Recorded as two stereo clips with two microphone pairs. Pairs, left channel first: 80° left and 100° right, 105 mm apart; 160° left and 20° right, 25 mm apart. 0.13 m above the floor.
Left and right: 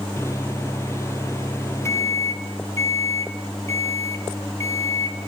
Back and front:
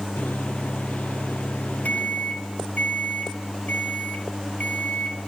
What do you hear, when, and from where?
0.2 s a microwave: 145° left, 2.5 m